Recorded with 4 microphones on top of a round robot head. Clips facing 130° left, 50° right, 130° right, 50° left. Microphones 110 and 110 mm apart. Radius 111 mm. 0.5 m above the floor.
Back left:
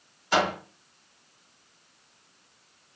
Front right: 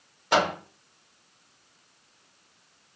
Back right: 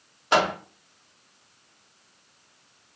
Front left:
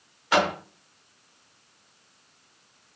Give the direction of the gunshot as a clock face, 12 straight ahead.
No gunshot in this recording.